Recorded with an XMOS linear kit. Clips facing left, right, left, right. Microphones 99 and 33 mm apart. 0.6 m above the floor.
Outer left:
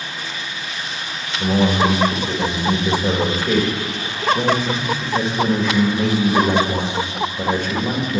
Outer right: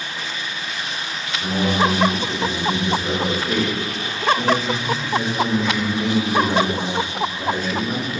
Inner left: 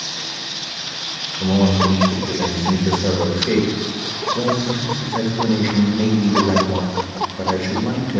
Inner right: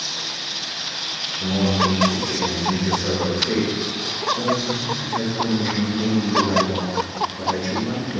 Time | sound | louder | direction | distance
1.4 | a man speaking | outer left 3 dB, inner left 4 dB | 70° left (ahead or behind) | 1.7 m